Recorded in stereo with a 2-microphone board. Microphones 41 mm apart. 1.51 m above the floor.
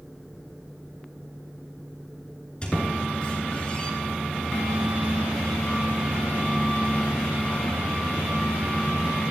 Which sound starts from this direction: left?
A squeak, at 2.6 s.